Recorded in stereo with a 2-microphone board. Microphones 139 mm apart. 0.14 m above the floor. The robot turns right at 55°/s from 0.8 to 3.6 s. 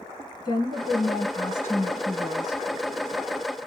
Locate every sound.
0.5 s a woman speaking: 95° left, 1.3 m; by 2.6 s 165° right, 1.3 m